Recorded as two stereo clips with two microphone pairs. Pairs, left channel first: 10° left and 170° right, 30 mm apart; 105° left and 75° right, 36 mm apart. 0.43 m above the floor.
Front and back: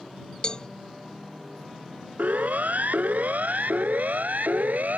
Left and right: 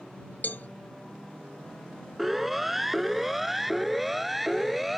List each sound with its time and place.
0.4 s a cowbell: 70° left
2.2 s a siren: 160° right; by 5.0 s 165° right